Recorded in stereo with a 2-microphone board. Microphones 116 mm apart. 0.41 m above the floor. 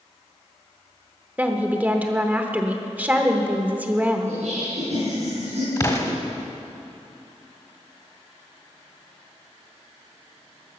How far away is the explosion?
About 1.3 m.